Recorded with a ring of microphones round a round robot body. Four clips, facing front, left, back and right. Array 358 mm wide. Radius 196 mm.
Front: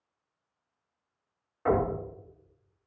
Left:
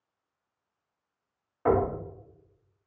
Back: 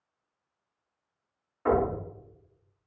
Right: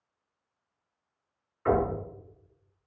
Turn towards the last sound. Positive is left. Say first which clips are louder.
# left 1 dB, back 1 dB
turn(degrees=85)